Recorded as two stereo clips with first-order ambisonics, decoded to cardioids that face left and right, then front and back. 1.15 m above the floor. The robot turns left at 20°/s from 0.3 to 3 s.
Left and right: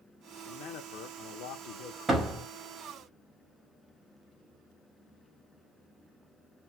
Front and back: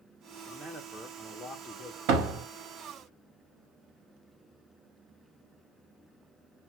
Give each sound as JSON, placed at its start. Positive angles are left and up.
{"t": 0.5, "sound": "a man speaking", "azimuth_deg": 100, "distance_m": 0.6}
{"t": 2.1, "sound": "a door slam", "azimuth_deg": -165, "distance_m": 1.2}